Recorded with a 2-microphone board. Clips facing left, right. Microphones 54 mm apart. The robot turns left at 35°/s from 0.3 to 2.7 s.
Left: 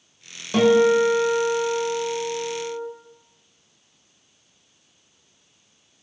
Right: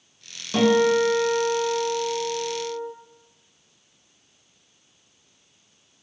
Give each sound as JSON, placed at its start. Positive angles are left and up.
{"t": 0.5, "sound": "a guitar", "azimuth_deg": 165, "distance_m": 1.8}